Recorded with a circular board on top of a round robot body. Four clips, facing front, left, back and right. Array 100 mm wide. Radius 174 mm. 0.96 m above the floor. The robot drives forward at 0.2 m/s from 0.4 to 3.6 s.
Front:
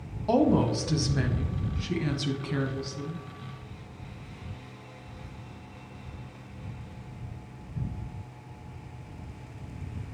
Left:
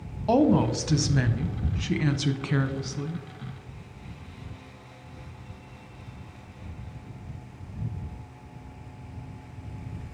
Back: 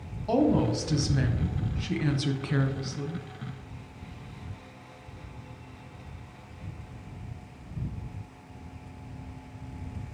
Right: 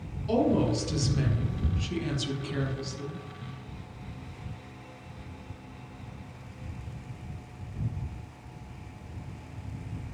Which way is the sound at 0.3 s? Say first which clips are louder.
Left 4 dB, front 1 dB; 75° left.